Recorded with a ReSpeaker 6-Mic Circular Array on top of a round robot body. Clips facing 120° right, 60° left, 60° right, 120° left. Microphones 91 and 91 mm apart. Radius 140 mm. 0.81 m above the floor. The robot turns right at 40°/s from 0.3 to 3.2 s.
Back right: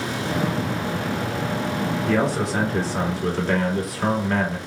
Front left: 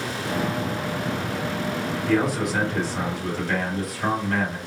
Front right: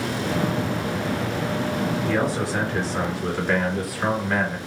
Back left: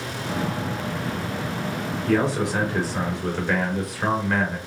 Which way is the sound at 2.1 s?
170° left.